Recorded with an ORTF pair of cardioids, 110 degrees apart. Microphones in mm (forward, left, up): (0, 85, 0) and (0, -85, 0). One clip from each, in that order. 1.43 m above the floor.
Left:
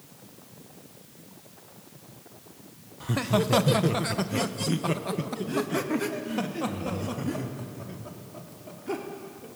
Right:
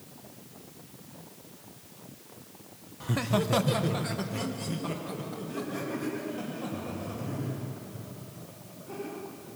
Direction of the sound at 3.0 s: 5° left.